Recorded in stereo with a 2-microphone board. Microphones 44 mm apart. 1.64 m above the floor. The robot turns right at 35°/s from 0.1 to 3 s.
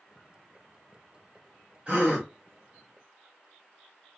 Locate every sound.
1.9 s a gasp: 30° right (ahead or behind), 1.5 m